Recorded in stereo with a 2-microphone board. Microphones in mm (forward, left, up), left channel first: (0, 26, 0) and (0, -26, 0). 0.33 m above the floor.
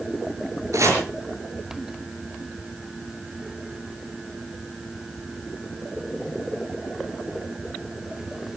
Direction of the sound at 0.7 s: 80° right.